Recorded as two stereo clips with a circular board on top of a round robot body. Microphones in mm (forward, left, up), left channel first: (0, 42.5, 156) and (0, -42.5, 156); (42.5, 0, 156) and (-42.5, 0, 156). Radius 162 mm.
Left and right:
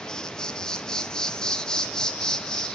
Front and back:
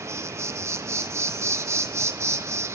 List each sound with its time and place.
0.0 s an insect: 165° left, 0.7 m